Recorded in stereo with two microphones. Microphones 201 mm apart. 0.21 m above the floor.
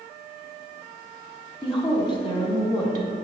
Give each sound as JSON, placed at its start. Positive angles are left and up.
{"t": 1.6, "sound": "a woman speaking", "side_deg": 30, "distance_m": 1.4}